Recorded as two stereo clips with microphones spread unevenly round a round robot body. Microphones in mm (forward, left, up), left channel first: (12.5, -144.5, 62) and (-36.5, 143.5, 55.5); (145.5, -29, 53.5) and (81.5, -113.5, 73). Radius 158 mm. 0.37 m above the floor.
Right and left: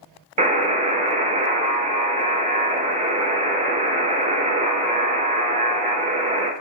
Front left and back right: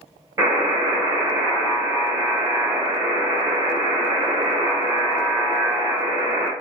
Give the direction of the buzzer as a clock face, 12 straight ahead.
7 o'clock.